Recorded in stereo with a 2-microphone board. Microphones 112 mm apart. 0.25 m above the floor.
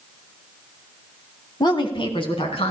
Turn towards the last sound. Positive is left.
turn(degrees=65)  # may be behind; listen again after turning